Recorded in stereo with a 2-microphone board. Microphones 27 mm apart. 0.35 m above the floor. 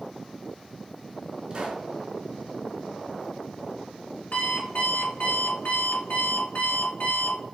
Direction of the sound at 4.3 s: 65° left (ahead or behind).